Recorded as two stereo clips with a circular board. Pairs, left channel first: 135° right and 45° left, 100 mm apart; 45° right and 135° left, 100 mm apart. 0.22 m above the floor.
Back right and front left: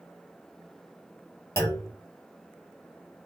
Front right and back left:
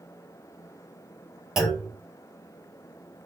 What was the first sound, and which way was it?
A clunk, 145° right.